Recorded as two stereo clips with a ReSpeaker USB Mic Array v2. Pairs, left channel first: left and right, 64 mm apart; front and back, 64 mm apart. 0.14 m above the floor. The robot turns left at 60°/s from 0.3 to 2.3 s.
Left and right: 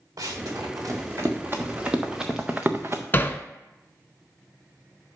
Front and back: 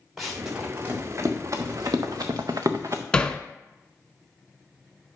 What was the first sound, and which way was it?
Running footsteps, 90° right.